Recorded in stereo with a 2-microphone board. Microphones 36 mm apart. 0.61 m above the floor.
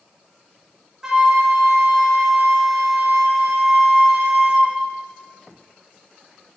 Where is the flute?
15° right (ahead or behind), 1.1 m.